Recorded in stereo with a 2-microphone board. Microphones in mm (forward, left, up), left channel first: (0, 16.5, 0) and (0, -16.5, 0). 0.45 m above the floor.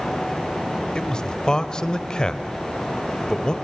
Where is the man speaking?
25° left (ahead or behind), 1.6 m.